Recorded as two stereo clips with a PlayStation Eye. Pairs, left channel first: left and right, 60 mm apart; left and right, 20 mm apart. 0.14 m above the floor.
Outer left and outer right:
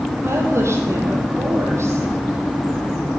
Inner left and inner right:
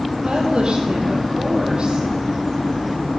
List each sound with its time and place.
0.2 s a woman speaking: 50° right (ahead or behind), 4.5 m